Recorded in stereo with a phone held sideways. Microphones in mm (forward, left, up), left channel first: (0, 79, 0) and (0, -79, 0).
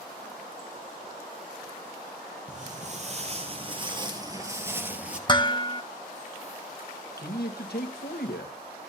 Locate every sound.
2.5 s footsteps: 50° right (ahead or behind), 2.5 m; by 5.2 s 5° right (ahead or behind), 2 m
5.3 s dishes clattering: 30° left (ahead or behind), 0.7 m
7.2 s a man speaking: 80° left, 1.3 m